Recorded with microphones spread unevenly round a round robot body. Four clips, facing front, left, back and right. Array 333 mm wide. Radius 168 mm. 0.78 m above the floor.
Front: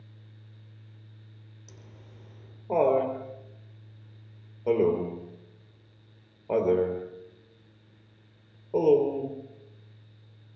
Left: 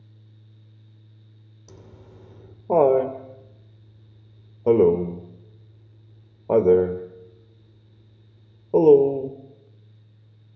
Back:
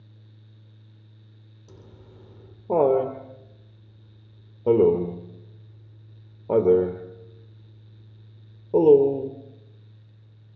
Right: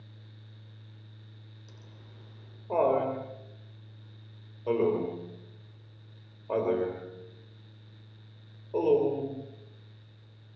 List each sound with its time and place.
1.7 s laughter: 120° left, 3 m